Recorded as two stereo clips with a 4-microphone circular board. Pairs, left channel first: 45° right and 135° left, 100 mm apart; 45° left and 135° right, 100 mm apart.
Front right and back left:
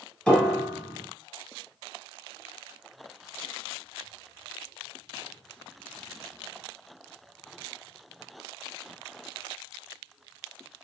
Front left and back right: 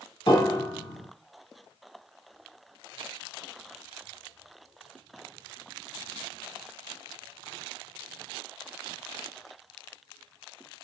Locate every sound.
0.3 s a piano: 30° left, 1.5 m